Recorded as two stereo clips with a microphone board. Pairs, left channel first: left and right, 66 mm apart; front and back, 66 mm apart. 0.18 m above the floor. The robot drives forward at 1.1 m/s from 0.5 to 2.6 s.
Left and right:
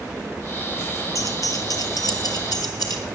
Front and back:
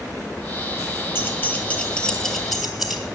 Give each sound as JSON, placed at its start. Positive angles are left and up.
{"t": 1.1, "sound": "keys jangling", "azimuth_deg": 55, "distance_m": 2.5}